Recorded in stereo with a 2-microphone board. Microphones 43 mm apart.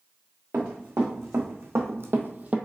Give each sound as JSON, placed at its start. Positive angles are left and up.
{"t": 0.5, "sound": "running footsteps", "side_deg": -80, "distance_m": 1.9}